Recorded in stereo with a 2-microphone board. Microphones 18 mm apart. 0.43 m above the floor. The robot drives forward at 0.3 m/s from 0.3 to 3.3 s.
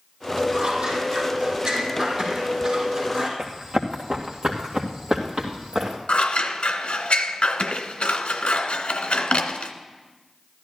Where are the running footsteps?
45° right (ahead or behind), 2.5 m; by 6.0 s 40° right (ahead or behind), 4 m.